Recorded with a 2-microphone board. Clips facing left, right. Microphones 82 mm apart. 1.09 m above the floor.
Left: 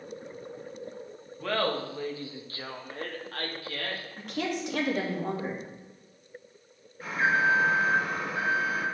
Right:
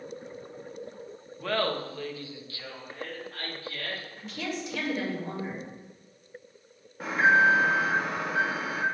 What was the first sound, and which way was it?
Laughter, centre (ahead or behind).